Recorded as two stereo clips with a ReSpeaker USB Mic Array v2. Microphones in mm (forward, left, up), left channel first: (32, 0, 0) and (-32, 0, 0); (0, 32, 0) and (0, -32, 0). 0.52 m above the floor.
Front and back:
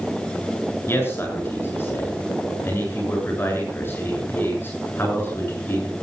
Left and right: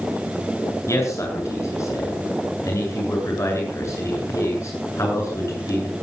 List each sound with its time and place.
0.9 s a man speaking: 55° left, 8.5 m